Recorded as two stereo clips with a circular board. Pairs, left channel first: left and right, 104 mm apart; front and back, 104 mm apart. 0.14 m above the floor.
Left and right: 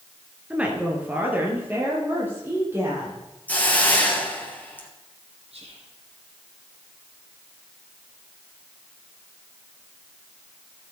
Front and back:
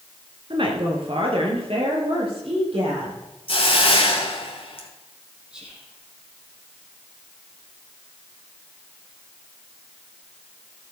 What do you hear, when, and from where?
0.5 s a woman speaking: 165° right, 2 m; by 3.2 s 155° right, 5 m
3.5 s a hiss: 15° left, 2 m
5.5 s whispering: 95° right, 4 m